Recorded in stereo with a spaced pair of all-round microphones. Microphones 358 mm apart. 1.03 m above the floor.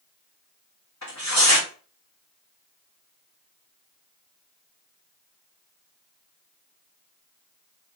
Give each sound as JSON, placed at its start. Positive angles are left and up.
{"t": 1.0, "sound": "tearing paper", "side_deg": 50, "distance_m": 1.9}